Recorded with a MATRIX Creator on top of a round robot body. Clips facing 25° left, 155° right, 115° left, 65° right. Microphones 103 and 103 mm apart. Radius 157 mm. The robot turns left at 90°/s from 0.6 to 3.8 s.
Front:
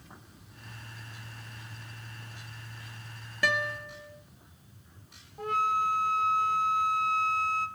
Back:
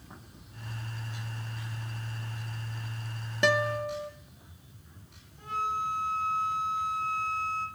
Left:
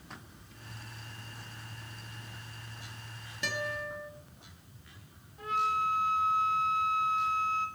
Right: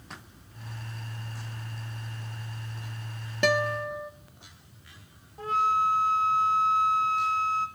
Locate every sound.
3.4 s a guitar: 90° right, 0.6 m; by 4.1 s 125° right, 0.6 m
5.4 s a flute: 15° right, 0.5 m